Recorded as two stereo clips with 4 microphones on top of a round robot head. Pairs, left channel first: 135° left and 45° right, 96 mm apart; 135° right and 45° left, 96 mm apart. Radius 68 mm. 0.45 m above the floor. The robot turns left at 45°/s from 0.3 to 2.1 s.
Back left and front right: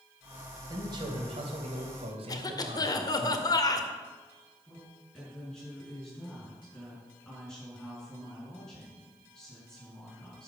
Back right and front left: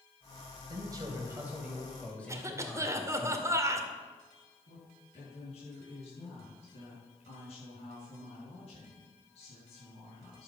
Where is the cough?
95° left, 1.9 m.